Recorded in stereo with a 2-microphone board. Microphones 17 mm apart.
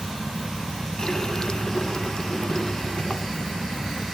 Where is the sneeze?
No sneeze in this recording.